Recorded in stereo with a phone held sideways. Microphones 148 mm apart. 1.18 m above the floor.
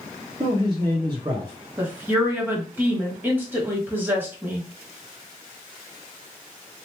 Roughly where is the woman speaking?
Centre.